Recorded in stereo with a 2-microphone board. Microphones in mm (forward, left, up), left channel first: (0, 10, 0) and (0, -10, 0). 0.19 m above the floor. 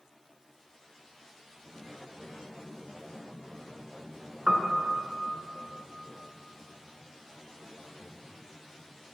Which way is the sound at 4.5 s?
25° right (ahead or behind).